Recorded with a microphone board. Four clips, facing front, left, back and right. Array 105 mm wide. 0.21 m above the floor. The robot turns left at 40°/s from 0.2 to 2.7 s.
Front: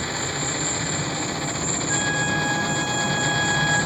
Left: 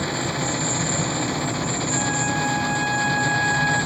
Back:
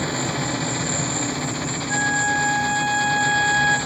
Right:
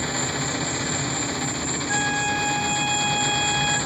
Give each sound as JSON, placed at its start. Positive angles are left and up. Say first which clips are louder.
{"t": 0.0, "sound": "an insect", "louder": "left 2 dB, back 4 dB", "azimuth_deg": 135, "distance_m": 1.8}
{"t": 1.9, "sound": "a flute", "louder": "right 2 dB, back 4 dB", "azimuth_deg": -65, "distance_m": 3.0}